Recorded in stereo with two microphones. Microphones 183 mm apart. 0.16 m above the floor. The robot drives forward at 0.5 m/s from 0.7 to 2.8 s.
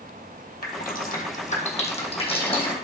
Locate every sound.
0.6 s dripping: 55° left (ahead or behind), 1.1 m; by 2.7 s 30° left (ahead or behind), 1.8 m